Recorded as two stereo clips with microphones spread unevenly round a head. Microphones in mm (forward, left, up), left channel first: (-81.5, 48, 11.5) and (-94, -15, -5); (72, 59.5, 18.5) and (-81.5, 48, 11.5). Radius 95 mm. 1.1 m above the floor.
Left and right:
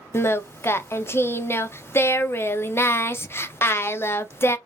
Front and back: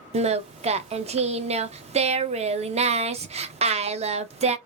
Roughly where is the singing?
Behind left.